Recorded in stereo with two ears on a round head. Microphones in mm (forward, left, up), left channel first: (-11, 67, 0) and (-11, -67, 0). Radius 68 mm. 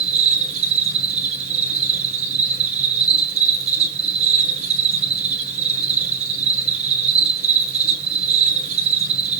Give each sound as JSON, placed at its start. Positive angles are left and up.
{"t": 0.0, "sound": "an insect", "side_deg": -50, "distance_m": 5.5}